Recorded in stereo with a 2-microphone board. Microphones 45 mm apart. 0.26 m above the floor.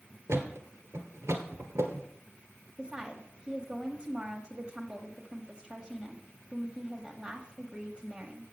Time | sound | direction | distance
0.3 | a thud | 85° right | 1.4 m
2.8 | a woman speaking | 15° right (ahead or behind) | 1.0 m